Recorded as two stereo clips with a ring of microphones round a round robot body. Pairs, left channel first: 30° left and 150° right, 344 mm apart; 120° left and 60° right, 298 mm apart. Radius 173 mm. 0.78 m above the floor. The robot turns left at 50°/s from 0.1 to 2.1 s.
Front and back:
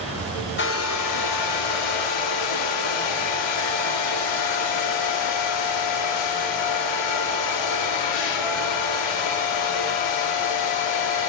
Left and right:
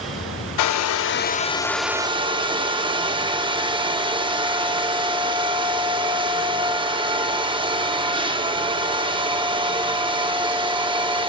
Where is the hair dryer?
90° left, 0.6 m; by 11.3 s 15° left, 0.6 m.